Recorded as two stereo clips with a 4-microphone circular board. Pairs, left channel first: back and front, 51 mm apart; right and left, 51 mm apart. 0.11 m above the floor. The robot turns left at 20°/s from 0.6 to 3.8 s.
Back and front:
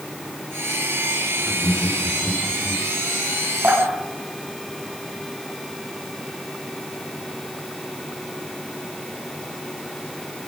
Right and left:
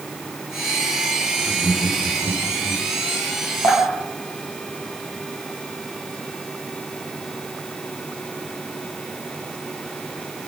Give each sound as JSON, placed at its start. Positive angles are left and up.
{"t": 1.4, "sound": "laughter", "azimuth_deg": -70, "distance_m": 6.5}
{"t": 3.6, "sound": "dripping", "azimuth_deg": -60, "distance_m": 5.5}